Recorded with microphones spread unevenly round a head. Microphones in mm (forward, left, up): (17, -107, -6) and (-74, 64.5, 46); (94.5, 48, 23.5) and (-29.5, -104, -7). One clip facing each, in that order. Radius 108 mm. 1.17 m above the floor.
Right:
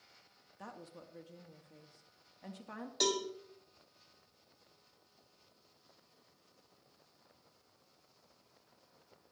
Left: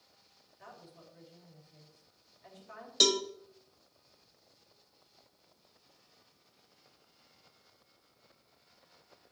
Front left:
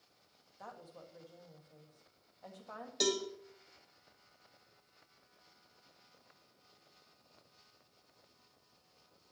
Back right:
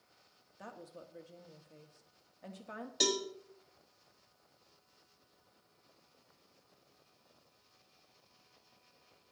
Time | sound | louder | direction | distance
0.6 | a woman speaking | right 3 dB, back right 2 dB | 70° right | 1.8 m
3.0 | a cowbell | left 4 dB, front left 1 dB | 140° left | 1.4 m